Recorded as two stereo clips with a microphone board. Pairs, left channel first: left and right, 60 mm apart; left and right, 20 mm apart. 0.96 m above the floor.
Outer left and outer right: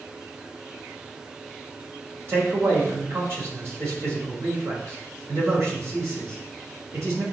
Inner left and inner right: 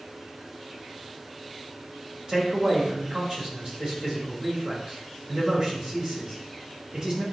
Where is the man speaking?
45° right (ahead or behind), 3.5 m.